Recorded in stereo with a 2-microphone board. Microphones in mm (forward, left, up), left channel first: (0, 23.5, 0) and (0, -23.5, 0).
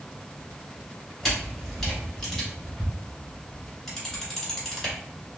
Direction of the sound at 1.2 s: 10° left (ahead or behind).